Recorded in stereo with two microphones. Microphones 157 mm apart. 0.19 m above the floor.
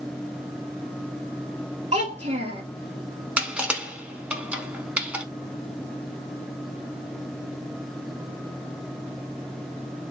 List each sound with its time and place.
1.9 s a child speaking: 45° right (ahead or behind), 2 m
3.4 s crushing: 5° right (ahead or behind), 0.8 m